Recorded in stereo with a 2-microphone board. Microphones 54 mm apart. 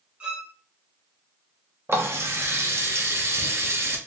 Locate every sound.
0.2 s a violin: 25° right (ahead or behind), 0.7 m
1.9 s a running tap: 50° right (ahead or behind), 0.6 m